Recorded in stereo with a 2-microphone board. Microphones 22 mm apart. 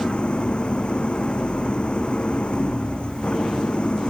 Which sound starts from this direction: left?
An engine running, at 0.0 s.